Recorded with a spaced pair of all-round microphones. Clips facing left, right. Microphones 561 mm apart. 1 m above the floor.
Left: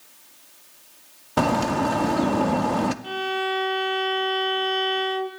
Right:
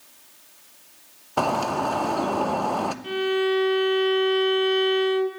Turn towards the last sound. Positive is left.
turn(degrees=20)  # may be behind; listen again after turning